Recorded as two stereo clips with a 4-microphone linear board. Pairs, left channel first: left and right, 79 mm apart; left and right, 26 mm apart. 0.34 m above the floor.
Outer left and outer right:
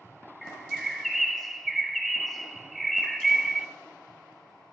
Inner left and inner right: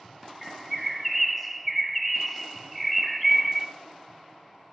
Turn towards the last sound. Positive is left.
turn(degrees=5)  # may be behind; listen again after turning